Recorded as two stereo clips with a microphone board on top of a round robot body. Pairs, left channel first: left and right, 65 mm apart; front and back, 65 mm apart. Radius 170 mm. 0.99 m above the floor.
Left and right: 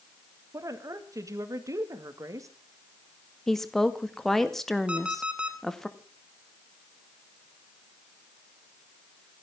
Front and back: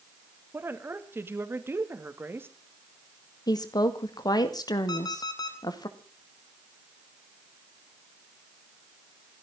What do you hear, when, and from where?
0.5 s a woman speaking: 125° right, 2.5 m
3.5 s a woman speaking: 5° left, 2 m
4.9 s an alarm clock: 20° right, 2.0 m